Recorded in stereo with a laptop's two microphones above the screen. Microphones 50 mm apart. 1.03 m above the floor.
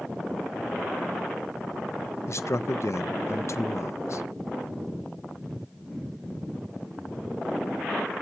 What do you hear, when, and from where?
2.3 s a man speaking: 60° left (ahead or behind), 0.5 m